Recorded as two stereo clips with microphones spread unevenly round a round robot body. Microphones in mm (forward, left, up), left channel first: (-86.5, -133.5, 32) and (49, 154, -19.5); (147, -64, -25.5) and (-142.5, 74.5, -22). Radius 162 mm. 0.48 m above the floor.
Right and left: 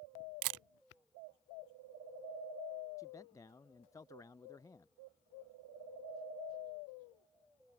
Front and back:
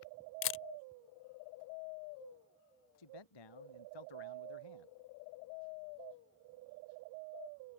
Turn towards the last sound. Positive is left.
turn(degrees=-35)